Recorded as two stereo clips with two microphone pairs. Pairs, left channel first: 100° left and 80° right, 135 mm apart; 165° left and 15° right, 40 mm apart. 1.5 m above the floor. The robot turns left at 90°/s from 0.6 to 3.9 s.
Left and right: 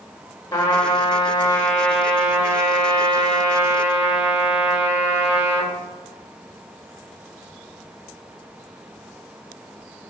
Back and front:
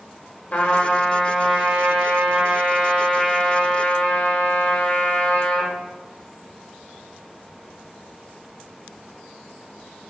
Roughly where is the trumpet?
Behind left.